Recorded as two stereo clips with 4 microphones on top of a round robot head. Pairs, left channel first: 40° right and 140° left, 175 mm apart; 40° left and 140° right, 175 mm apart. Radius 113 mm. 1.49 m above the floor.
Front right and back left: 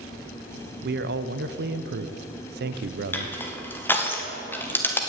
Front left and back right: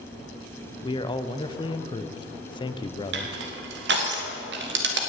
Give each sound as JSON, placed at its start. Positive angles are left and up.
{"t": 0.8, "sound": "a man speaking", "azimuth_deg": 105, "distance_m": 0.6}
{"t": 3.1, "sound": "crushing", "azimuth_deg": -120, "distance_m": 1.8}